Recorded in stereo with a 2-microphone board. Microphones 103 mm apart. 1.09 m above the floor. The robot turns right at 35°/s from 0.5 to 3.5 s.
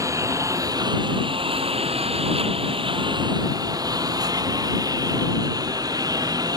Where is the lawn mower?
145° right; by 6.6 s 40° right.